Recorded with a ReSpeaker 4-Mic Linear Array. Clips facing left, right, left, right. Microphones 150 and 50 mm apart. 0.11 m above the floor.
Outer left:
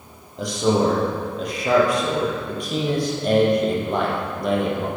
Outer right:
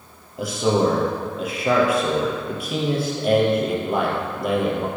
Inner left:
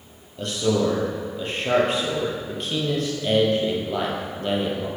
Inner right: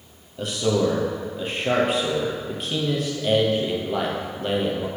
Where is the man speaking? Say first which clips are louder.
Even, even; 5° right (ahead or behind), 3 m.